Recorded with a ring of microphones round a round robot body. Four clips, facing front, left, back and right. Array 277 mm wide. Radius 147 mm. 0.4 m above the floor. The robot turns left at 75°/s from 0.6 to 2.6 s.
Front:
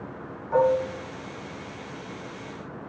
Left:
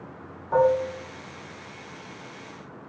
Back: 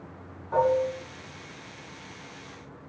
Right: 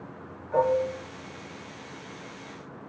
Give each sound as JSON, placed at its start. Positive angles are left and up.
{"t": 0.5, "sound": "dishes clattering", "azimuth_deg": 85, "distance_m": 2.5}